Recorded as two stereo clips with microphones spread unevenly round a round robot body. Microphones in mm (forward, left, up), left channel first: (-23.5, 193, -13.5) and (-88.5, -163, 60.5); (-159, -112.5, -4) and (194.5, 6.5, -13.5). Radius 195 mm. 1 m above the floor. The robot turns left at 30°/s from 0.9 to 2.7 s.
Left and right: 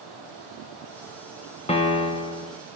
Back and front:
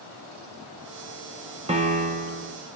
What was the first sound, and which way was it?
A piano, 70° left.